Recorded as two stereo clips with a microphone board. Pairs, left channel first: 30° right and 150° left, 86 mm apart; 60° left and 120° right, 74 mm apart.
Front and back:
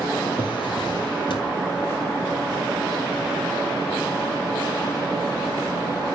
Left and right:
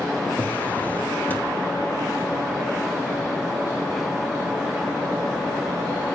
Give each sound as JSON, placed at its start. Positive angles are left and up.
{"t": 0.4, "sound": "a drawer", "azimuth_deg": -5, "distance_m": 1.4}